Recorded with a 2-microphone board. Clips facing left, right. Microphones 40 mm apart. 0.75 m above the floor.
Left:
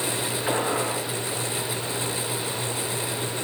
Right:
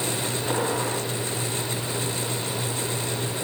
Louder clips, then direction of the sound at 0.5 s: Left 1 dB; 40° left (ahead or behind).